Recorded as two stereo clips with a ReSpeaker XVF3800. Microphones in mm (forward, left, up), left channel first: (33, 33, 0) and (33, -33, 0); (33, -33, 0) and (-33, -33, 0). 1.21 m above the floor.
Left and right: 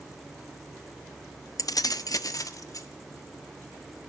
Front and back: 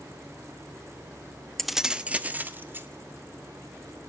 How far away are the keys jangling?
About 0.7 m.